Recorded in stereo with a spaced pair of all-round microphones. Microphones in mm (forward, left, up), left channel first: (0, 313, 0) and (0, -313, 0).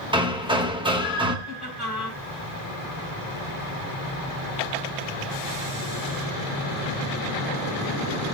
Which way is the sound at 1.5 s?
40° left (ahead or behind).